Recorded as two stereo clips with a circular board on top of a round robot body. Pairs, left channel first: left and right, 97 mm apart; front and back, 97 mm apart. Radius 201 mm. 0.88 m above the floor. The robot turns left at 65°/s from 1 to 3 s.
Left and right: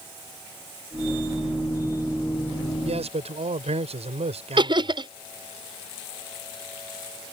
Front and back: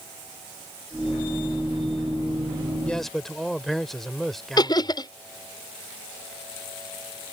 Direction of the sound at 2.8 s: 80° right.